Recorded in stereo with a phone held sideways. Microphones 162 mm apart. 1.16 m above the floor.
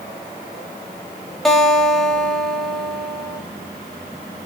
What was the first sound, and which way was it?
A guitar, centre (ahead or behind).